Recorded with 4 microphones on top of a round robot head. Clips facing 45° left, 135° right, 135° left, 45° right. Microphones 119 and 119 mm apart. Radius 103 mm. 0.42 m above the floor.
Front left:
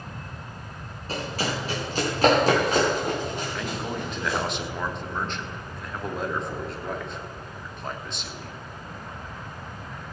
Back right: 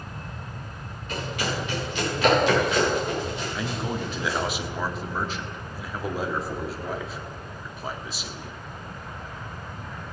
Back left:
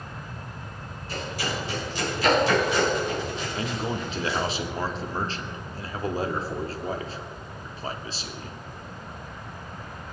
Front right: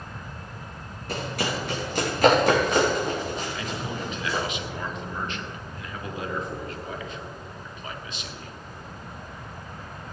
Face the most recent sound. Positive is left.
turn(degrees=145)